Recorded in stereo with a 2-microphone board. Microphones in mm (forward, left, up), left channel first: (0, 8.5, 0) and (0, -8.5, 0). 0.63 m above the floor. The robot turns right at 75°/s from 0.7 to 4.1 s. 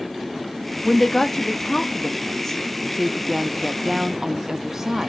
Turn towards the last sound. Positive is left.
turn(degrees=-30)  # may be behind; listen again after turning